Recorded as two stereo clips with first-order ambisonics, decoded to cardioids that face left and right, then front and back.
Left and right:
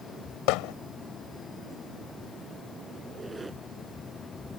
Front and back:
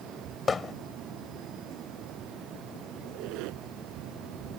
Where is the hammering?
70° left.